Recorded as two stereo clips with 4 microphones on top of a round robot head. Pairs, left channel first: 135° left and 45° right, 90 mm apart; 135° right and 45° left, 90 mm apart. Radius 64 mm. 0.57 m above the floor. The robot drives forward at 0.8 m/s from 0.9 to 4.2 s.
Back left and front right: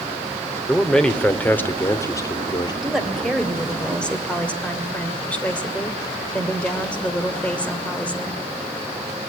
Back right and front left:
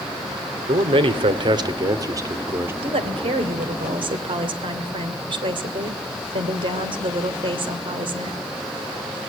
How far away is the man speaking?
About 2 m.